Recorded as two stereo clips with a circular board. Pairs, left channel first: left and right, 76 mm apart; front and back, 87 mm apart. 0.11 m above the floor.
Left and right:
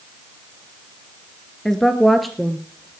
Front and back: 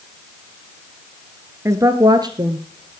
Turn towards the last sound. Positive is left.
turn(degrees=-175)